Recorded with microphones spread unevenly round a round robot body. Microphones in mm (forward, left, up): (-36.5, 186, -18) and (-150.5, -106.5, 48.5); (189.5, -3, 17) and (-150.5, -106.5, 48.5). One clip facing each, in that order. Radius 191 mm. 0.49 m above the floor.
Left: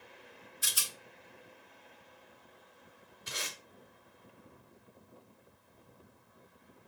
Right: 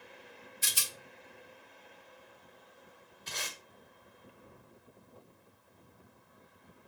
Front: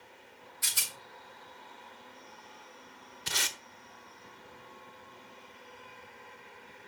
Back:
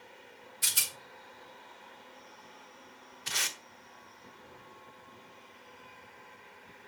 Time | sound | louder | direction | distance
0.6 | a rattle | right 1 dB, back 1 dB | 165° right | 1.4 m
3.3 | tape being pulled | left 1 dB, front 3 dB | 5° left | 0.9 m